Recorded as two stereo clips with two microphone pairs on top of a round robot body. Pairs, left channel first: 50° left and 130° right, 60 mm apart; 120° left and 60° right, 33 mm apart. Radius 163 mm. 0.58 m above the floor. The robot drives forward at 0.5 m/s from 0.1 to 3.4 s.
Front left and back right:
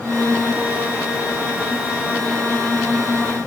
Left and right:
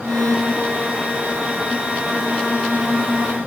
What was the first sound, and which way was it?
Only background noise.